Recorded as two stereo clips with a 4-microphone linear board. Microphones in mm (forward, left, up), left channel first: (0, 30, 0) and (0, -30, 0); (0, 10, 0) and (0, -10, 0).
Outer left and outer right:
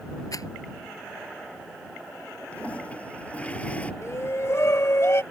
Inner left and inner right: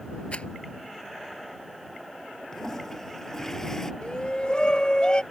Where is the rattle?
80° left.